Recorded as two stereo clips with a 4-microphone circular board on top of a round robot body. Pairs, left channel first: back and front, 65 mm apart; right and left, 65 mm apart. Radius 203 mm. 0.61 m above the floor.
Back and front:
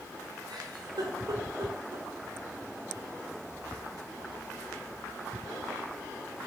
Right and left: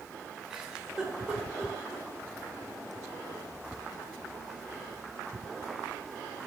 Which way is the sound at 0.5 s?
10° left.